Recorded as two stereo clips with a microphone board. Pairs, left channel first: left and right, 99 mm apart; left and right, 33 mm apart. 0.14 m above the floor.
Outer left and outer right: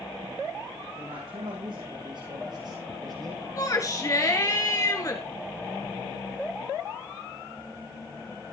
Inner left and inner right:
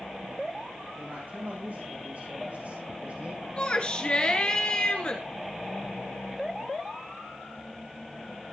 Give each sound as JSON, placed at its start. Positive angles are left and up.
{"t": 0.9, "sound": "a man speaking", "side_deg": -75, "distance_m": 6.5}
{"t": 3.6, "sound": "a shout", "side_deg": 35, "distance_m": 1.9}